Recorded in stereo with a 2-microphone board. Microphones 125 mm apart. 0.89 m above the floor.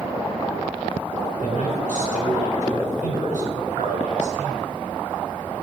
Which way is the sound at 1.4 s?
75° left (ahead or behind).